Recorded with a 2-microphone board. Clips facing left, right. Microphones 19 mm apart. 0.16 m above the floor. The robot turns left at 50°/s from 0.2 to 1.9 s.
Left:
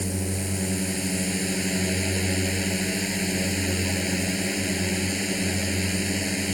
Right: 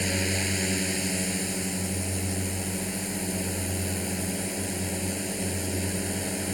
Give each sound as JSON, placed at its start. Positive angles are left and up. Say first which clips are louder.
{"t": 0.0, "sound": "a drone", "louder": "right 2 dB", "azimuth_deg": -130}